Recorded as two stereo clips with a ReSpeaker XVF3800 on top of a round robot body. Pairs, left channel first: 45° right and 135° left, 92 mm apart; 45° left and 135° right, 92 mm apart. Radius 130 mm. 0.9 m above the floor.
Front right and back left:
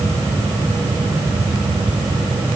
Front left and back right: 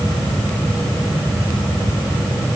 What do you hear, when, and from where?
Only background noise.